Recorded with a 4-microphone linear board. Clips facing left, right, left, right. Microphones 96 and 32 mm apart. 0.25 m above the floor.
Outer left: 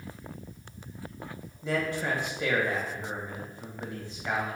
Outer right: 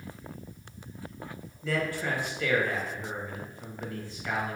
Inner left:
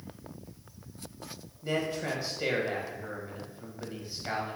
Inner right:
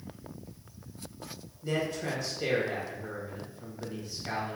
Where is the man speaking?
20° left (ahead or behind), 1.0 m.